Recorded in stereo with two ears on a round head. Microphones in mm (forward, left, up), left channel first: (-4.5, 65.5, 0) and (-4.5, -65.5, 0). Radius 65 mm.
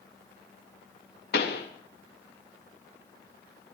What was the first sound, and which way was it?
A pop, 85° left.